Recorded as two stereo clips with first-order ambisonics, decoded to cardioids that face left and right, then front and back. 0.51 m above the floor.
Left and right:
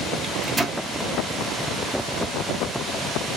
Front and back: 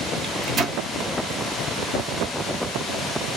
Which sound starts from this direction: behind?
A microwave, at 0.2 s.